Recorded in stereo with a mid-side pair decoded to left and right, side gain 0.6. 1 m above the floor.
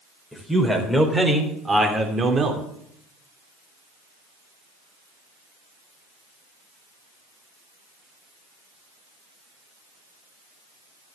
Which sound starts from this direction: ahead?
A man speaking, at 0.3 s.